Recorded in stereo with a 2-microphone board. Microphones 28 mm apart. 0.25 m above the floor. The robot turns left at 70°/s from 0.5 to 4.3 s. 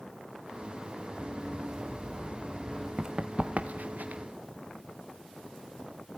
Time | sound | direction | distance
1.2 | running footsteps | 75° right (ahead or behind) | 6 m
3.0 | running footsteps | 25° right (ahead or behind) | 1.2 m